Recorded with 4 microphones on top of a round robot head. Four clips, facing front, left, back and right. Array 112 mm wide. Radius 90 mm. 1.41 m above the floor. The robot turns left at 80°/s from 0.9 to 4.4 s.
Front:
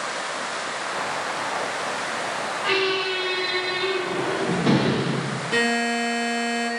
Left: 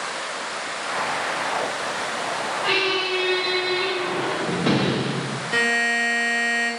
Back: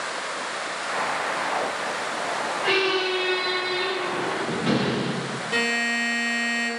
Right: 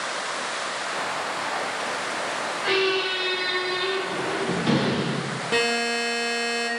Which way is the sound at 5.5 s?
95° right.